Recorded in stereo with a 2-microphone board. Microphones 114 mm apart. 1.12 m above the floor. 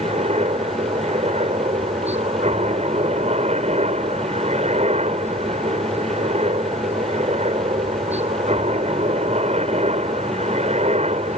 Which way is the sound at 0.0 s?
75° right (ahead or behind).